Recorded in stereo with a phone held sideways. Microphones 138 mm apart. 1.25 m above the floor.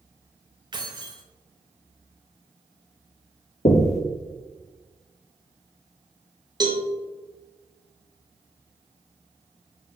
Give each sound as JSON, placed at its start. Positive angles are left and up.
{"t": 0.7, "sound": "keys jangling", "side_deg": -35, "distance_m": 0.6}
{"t": 3.6, "sound": "knocking", "side_deg": 55, "distance_m": 0.5}
{"t": 6.6, "sound": "a cowbell", "side_deg": -30, "distance_m": 0.6}